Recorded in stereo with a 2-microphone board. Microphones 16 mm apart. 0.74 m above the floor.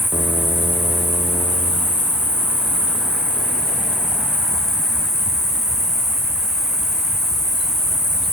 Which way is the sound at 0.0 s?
30° left (ahead or behind).